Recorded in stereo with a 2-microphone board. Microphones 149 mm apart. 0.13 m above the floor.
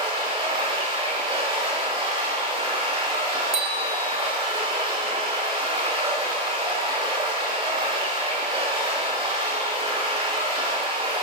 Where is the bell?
40° right (ahead or behind), 3 m.